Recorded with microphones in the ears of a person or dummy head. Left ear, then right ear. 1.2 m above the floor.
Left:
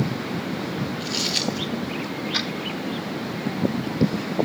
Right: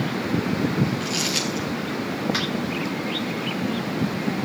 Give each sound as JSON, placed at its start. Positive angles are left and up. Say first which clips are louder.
{"t": 1.0, "sound": "crumpling", "louder": "left 4 dB", "side_deg": -5, "distance_m": 6.0}
{"t": 2.3, "sound": "tapping", "louder": "left 1 dB", "side_deg": -20, "distance_m": 8.0}